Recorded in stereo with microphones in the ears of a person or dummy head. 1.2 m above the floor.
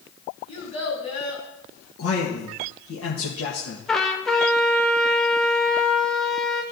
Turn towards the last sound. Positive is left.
turn(degrees=0)  # may be behind; listen again after turning